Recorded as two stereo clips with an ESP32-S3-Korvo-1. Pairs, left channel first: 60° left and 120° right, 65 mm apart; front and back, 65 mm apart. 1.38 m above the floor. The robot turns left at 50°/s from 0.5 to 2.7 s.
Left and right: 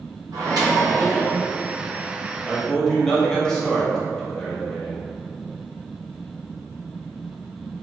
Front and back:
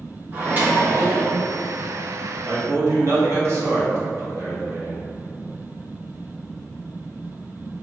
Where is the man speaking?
155° left, 0.9 m; by 5.0 s 145° left, 0.9 m.